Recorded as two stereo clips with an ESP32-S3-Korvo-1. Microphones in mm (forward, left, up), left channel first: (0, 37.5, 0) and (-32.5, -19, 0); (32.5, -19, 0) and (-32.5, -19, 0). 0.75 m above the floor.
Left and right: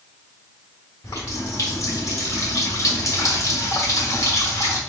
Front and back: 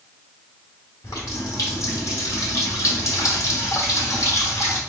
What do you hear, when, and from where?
1.0 s a running tap: 25° left, 1.3 m